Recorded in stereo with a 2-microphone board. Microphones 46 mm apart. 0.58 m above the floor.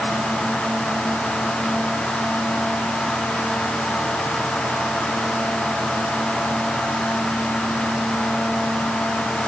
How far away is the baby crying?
No baby crying in this recording.